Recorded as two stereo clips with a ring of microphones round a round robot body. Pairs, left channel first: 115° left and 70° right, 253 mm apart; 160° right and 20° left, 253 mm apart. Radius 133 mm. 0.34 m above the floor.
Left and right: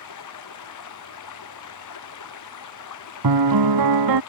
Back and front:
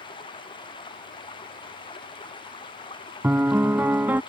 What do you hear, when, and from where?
0.0 s running water: 130° left
3.2 s a piano: 60° right